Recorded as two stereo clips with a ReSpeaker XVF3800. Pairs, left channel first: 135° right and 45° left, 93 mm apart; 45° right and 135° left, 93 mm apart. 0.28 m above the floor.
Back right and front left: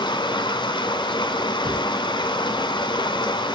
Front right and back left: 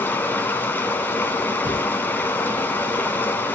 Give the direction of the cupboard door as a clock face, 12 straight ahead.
9 o'clock.